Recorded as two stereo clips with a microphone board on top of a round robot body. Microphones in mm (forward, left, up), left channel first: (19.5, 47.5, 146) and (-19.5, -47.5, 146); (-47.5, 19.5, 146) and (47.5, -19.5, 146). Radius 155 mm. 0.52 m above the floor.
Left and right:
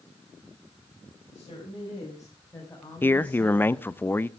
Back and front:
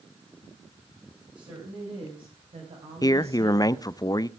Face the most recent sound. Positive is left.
turn(degrees=125)